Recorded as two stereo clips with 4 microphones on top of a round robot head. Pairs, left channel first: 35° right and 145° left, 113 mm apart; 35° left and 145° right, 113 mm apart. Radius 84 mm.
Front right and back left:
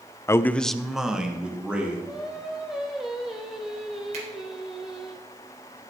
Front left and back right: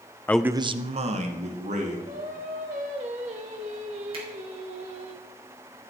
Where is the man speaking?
10° right, 0.5 m; by 2.0 s 135° right, 2.5 m.